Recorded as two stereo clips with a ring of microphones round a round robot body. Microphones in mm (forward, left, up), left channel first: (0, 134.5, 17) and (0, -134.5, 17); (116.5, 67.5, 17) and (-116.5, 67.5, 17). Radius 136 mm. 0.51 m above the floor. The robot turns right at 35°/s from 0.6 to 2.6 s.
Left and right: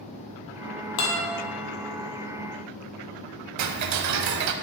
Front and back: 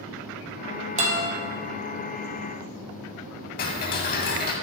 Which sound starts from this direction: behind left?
A guitar, at 1.0 s.